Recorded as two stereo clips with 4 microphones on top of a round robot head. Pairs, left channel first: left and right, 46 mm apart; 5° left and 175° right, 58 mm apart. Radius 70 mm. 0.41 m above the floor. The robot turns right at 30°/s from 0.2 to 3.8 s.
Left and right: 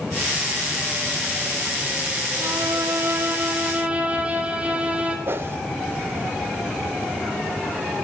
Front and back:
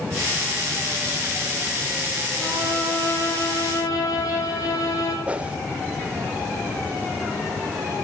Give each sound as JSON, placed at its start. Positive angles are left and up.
{"t": 2.4, "sound": "a violin", "azimuth_deg": -70, "distance_m": 3.5}
{"t": 5.3, "sound": "a whoosh", "azimuth_deg": -110, "distance_m": 0.7}